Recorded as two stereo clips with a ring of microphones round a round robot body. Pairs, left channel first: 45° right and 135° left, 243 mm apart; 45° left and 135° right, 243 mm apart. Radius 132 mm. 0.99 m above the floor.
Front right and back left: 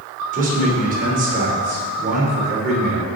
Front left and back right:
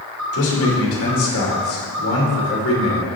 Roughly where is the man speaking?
Left.